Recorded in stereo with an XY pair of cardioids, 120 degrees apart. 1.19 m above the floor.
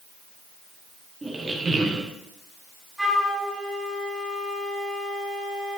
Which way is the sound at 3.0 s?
20° right.